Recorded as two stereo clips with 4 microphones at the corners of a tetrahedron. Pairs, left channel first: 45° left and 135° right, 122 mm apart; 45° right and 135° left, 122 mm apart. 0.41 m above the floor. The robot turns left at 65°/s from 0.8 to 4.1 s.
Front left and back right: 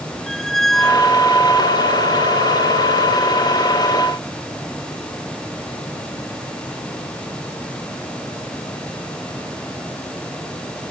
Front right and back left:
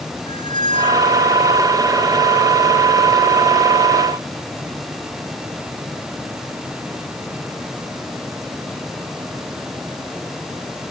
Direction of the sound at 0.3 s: 135° left.